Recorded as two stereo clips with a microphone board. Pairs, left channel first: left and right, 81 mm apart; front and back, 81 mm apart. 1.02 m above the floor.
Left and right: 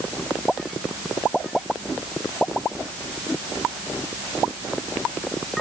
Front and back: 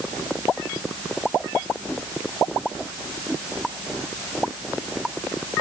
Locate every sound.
Only background noise.